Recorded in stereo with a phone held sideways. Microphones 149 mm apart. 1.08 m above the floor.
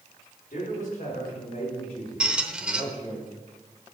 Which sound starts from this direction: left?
A man speaking, at 0.5 s.